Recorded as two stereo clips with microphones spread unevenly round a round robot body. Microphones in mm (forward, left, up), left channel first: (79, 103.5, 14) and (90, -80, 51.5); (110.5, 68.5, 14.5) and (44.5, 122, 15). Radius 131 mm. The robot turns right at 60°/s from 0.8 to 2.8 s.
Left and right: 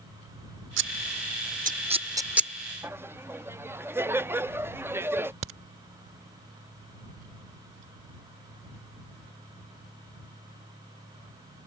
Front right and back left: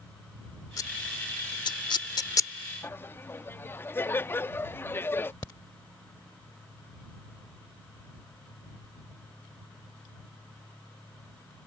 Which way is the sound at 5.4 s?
105° right.